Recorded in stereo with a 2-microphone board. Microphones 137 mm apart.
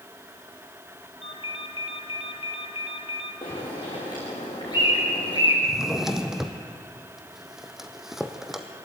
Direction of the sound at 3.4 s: 35° left (ahead or behind).